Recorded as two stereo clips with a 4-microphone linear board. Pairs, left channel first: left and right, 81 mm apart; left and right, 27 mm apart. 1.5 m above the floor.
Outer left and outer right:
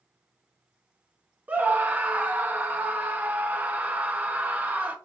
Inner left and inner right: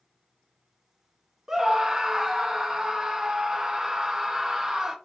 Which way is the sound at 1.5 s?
20° right (ahead or behind).